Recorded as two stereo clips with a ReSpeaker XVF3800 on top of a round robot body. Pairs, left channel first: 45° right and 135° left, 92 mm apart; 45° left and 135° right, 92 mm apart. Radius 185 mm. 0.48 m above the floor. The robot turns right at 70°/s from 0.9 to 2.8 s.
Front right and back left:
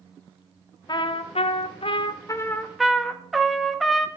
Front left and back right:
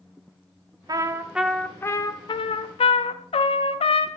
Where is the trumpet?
85° right, 0.6 m; by 4.1 s 45° left, 0.6 m.